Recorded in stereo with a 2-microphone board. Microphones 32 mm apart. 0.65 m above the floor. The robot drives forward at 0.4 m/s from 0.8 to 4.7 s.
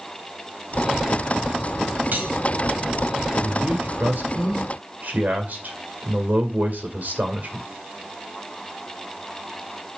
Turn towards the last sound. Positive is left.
turn(degrees=-70)  # may be behind; listen again after turning